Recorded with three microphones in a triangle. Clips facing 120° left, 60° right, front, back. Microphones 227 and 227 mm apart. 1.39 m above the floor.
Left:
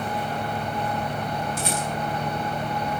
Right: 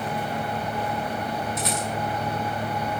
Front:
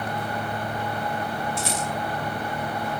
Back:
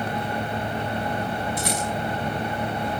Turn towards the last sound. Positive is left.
turn(degrees=60)